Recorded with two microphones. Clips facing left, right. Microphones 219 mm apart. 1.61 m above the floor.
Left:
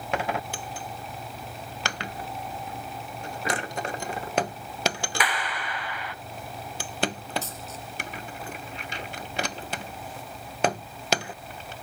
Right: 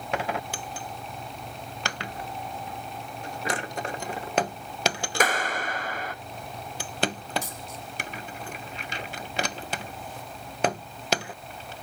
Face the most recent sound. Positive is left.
turn(degrees=-15)  # may be behind; listen again after turning